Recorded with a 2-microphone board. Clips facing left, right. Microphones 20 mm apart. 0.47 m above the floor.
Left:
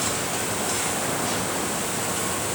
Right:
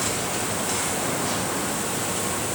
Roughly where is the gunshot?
I don't hear a gunshot.